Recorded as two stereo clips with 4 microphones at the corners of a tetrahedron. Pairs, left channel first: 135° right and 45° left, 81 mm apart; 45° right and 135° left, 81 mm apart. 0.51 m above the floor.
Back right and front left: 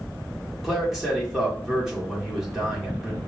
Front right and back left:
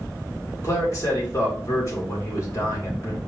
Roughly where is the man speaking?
Ahead right.